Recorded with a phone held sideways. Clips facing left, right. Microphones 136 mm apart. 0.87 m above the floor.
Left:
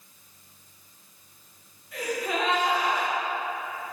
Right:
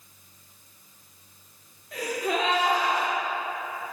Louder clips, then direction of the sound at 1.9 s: Right 1 dB; 85° right.